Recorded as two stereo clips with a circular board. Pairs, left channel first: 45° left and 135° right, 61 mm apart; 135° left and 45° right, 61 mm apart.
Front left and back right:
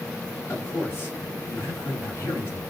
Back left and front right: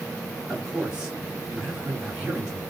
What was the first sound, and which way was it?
A man speaking, 30° left.